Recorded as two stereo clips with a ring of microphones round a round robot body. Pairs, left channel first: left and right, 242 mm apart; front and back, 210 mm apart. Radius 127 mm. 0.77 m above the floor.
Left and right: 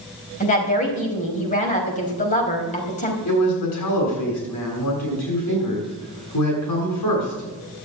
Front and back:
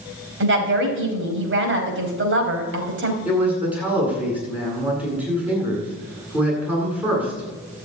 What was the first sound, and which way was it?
A woman speaking, 150° left.